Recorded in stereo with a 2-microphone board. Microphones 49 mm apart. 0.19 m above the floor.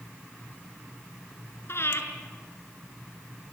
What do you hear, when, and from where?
1.7 s breathing: 55° left (ahead or behind), 3 m